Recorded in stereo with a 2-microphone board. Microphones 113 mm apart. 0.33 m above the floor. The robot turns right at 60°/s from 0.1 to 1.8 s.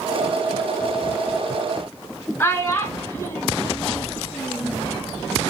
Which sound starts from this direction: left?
A child speaking, at 2.4 s.